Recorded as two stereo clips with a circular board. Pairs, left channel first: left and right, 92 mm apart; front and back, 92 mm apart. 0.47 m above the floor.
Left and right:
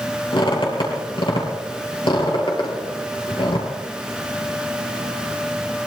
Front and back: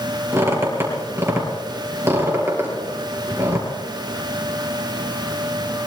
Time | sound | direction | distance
0.3 | a squeak | 120° left | 4.5 m